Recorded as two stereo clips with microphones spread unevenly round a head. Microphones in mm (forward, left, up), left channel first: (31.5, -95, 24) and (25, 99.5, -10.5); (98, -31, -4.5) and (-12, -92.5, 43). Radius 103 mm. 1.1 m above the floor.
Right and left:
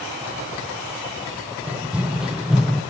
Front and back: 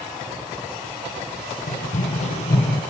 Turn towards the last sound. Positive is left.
turn(degrees=-15)